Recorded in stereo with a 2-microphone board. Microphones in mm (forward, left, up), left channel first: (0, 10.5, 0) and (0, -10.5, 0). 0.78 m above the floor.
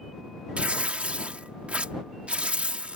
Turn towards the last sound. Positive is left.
turn(degrees=-60)  # may be behind; listen again after turning